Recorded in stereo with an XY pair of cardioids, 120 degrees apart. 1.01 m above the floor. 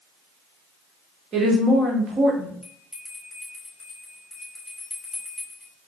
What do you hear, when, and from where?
1.3 s a woman speaking: 45° right, 1.7 m
2.6 s a bell: 10° left, 2.5 m